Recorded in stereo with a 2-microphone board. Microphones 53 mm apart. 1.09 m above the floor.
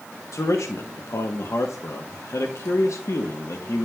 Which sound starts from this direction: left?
A man speaking, at 0.3 s.